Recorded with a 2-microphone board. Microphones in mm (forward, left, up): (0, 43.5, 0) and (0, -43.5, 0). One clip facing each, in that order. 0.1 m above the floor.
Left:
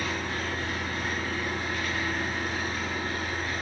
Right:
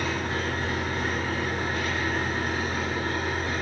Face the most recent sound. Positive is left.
turn(degrees=-30)  # may be behind; listen again after turning